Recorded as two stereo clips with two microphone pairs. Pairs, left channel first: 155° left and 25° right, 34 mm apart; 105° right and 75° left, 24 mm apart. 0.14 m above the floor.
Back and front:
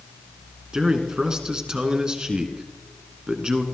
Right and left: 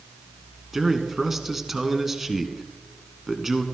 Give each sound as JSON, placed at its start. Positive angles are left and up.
{"t": 0.7, "sound": "a man speaking", "azimuth_deg": 15, "distance_m": 1.7}